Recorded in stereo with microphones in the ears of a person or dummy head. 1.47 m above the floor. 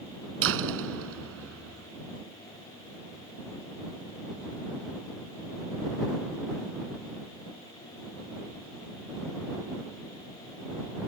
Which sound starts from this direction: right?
A door slam, at 0.4 s.